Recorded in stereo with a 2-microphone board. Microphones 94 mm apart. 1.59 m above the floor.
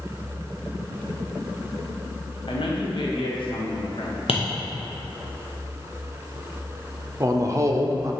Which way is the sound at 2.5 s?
60° left (ahead or behind).